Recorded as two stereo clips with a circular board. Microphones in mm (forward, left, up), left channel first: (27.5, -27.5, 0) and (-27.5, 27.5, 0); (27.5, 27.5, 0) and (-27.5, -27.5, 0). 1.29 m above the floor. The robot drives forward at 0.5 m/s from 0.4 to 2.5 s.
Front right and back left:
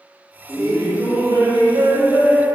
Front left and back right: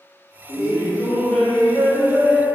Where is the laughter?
80° left, 0.8 m; by 2.5 s 140° left, 1.2 m.